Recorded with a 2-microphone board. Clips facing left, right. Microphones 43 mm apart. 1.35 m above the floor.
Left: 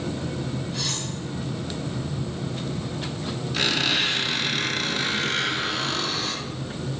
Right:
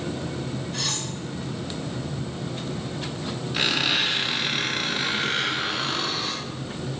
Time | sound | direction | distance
0.7 | cutlery clinking | 75° right (ahead or behind) | 1.6 m
3.5 | a squeak | 15° right (ahead or behind) | 1.4 m